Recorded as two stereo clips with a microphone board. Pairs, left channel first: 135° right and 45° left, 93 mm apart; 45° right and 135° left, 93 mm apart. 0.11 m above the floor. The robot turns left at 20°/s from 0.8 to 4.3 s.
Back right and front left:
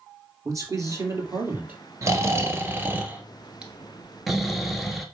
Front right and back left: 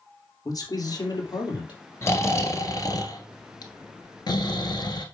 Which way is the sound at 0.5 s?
5° right.